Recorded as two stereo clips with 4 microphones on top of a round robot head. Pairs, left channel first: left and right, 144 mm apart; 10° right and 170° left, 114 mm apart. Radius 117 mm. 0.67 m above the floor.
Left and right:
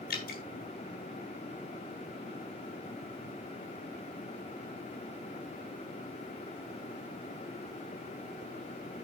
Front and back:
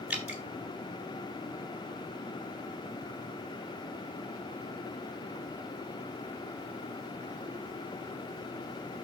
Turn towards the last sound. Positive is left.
turn(degrees=90)